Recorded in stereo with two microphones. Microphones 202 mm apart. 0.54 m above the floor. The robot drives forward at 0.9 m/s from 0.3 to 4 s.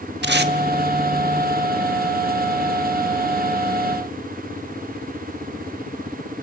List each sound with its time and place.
0.2 s tape being pulled: 60° right (ahead or behind), 0.9 m; by 0.5 s 50° right (ahead or behind), 1.0 m